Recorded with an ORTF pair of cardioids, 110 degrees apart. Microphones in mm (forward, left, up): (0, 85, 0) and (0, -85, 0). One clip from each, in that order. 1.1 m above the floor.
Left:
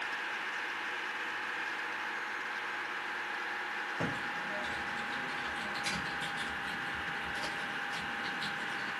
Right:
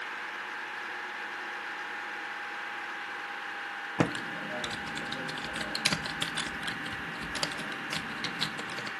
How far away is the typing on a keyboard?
About 0.5 m.